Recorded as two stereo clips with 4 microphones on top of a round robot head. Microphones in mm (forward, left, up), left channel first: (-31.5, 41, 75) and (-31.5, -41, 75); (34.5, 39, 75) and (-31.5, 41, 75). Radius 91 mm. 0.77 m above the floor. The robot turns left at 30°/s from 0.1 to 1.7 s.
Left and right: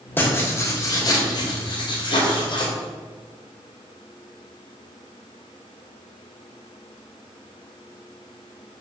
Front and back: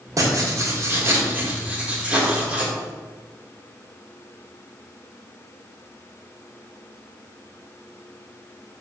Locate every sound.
0.2 s writing: 155° left, 3 m; by 2.7 s 105° left, 3 m